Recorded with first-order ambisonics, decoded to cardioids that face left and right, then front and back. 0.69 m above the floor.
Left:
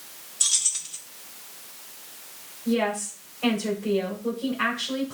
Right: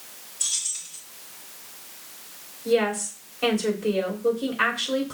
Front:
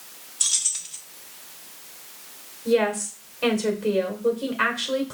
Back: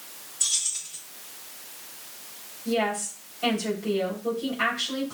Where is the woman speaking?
35° right, 2.5 m.